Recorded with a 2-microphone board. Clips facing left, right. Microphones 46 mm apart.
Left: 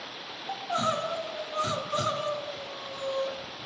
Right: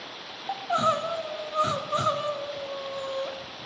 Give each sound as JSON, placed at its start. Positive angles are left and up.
{"t": 0.5, "sound": "crying", "side_deg": -25, "distance_m": 0.6}